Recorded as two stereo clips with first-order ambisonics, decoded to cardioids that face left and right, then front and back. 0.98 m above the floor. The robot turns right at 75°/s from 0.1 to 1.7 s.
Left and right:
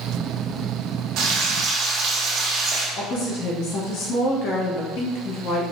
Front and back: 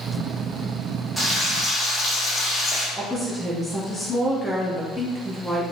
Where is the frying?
90° right, 1.3 m; by 2.9 s 50° right, 1.3 m.